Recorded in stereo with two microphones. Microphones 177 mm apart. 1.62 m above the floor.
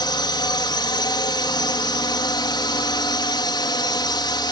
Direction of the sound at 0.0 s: 25° left (ahead or behind).